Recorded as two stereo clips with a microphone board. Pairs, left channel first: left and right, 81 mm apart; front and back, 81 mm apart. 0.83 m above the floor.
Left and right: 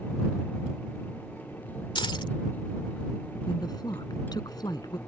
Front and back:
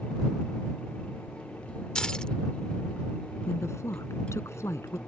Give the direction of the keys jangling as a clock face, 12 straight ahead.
9 o'clock.